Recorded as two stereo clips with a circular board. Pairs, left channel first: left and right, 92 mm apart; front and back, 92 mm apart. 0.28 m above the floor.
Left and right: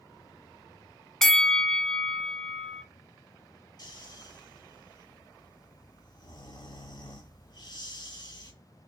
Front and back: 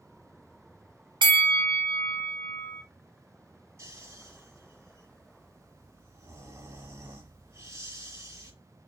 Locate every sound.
1.2 s a bell: 175° left, 0.5 m
3.8 s snoring: 125° left, 2.5 m